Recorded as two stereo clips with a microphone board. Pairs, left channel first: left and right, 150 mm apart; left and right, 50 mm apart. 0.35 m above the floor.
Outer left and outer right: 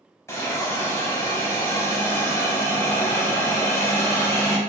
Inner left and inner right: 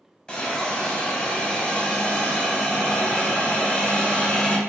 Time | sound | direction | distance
0.3 | a hiss | 20° left (ahead or behind) | 0.5 m